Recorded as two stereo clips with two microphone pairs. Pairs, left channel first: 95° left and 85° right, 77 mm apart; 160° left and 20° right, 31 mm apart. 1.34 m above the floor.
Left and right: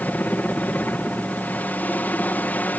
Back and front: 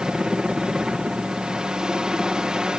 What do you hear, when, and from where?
0.0 s a helicopter: 35° left